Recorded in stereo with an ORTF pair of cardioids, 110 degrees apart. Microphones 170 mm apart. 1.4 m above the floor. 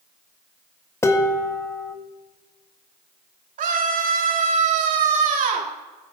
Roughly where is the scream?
Ahead right.